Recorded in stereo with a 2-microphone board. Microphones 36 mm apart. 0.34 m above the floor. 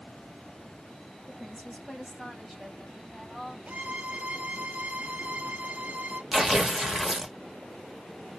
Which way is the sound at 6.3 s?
Centre (ahead or behind).